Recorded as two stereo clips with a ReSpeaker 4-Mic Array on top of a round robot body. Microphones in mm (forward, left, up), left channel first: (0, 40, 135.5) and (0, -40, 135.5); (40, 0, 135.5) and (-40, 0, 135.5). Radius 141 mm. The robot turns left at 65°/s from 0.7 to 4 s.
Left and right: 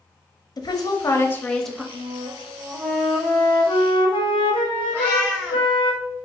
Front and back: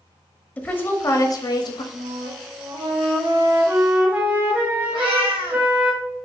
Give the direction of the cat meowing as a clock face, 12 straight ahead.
7 o'clock.